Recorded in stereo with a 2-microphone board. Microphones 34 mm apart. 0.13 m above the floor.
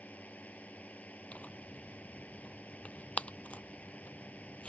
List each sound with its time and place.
0.0 s a drone: 50° left (ahead or behind)
1.3 s tearing paper: 45° left (ahead or behind)